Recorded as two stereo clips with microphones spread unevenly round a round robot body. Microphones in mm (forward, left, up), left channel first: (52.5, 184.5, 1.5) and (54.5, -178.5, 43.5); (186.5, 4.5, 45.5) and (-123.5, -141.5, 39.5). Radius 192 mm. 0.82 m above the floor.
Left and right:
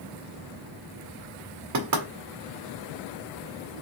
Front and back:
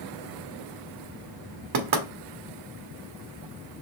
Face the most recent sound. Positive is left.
turn(degrees=-140)